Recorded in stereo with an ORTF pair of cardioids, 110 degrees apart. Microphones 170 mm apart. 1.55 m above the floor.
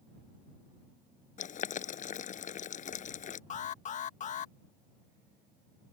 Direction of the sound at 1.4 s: 50° left.